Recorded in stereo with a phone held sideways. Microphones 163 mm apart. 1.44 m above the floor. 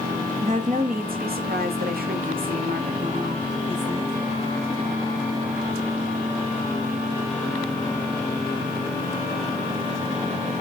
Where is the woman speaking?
45° right (ahead or behind), 0.9 m; by 4.1 s 50° right (ahead or behind), 1.9 m.